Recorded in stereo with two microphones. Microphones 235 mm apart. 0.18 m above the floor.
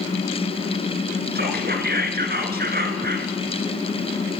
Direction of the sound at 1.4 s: 40° right (ahead or behind).